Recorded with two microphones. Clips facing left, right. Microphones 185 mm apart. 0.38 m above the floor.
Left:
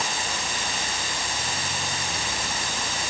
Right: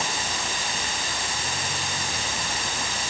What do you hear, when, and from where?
Only background noise.